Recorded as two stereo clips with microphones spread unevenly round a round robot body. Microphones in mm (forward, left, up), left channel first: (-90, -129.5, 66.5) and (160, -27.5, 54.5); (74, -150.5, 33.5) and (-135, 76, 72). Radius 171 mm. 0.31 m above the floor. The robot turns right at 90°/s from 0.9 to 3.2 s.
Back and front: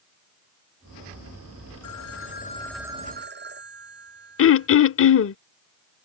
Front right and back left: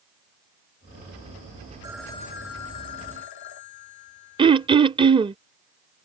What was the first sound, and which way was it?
A phone ringing, 150° right.